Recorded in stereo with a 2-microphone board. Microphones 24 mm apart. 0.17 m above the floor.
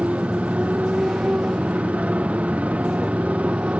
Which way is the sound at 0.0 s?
75° right (ahead or behind).